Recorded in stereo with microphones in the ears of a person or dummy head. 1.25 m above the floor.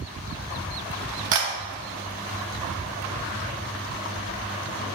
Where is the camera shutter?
45° right (ahead or behind), 1.8 m.